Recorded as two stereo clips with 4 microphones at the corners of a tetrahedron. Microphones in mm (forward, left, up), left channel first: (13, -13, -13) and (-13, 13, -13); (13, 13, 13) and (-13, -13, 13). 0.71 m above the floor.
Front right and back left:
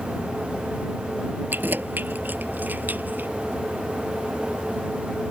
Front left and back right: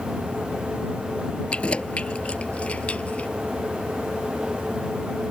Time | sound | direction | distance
1.5 | keys jangling | 105° left | ?